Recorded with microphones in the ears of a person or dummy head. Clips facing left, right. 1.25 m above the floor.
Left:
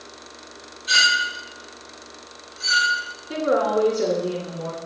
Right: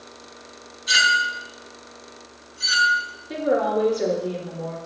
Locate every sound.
0.9 s a clink: 15° right (ahead or behind), 3 m
3.3 s a woman speaking: 5° left (ahead or behind), 2.5 m